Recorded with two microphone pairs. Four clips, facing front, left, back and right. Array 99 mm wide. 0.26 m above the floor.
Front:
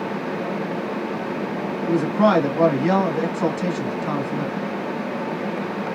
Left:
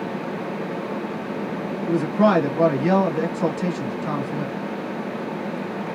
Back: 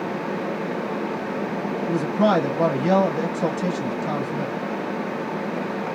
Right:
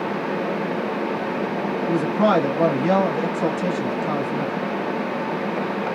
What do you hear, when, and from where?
1.9 s a man speaking: 10° left, 1.0 m